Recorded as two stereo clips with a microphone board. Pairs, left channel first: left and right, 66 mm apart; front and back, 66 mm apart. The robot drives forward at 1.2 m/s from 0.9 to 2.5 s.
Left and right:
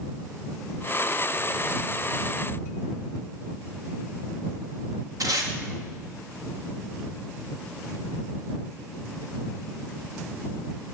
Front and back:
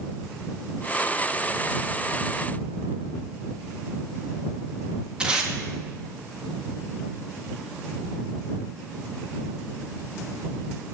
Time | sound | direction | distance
5.2 | tape being pulled | 105° right | 1.7 m